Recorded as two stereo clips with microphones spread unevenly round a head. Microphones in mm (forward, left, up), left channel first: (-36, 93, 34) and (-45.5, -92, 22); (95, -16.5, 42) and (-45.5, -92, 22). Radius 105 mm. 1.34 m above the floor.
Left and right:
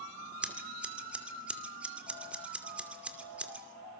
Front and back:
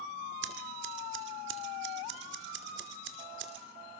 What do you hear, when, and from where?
0.4 s scissors: 175° right, 2.5 m